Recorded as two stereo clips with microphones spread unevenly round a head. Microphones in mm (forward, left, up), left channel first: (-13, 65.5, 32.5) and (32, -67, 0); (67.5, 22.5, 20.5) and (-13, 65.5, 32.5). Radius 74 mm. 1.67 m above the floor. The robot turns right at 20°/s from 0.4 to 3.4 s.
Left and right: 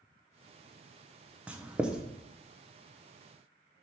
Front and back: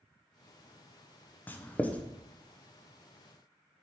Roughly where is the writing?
Ahead left.